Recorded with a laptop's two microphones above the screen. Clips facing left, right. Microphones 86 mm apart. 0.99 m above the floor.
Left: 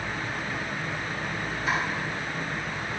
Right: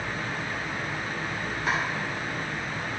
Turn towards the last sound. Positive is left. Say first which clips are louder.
# even
turn(degrees=-75)  # may be behind; listen again after turning